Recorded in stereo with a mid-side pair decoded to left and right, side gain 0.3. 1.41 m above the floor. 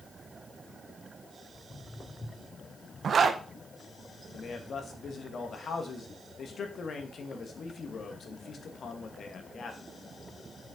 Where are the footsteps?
50° left, 5 m; by 2.6 s 55° left, 4.5 m.